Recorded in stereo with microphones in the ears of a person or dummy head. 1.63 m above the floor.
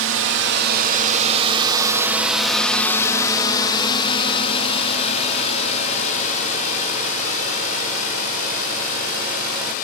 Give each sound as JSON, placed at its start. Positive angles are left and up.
{"t": 0.0, "sound": "a drone", "side_deg": -65}